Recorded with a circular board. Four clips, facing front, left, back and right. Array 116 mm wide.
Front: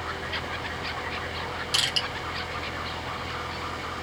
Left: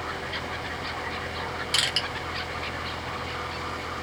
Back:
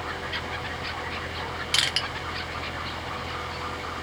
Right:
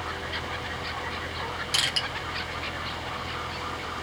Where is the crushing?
175° left, 1.1 m.